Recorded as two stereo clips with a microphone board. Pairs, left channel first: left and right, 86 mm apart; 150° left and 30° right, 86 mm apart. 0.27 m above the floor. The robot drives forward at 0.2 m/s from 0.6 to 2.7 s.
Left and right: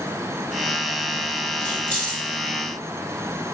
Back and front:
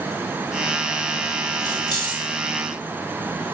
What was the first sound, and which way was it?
Keys jangling, 160° left.